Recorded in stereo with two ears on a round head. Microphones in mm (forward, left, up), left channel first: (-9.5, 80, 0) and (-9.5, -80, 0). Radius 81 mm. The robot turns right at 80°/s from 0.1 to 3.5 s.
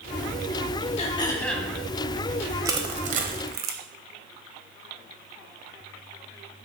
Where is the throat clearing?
130° left, 1.5 m; by 1.7 s 170° right, 1.5 m.